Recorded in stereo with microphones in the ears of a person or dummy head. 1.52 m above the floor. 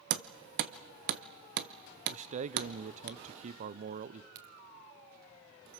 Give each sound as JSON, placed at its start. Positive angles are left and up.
{"t": 0.1, "sound": "hammering", "side_deg": -55, "distance_m": 0.8}
{"t": 2.1, "sound": "a man speaking", "side_deg": -45, "distance_m": 0.6}
{"t": 4.3, "sound": "a crack", "side_deg": -60, "distance_m": 2.5}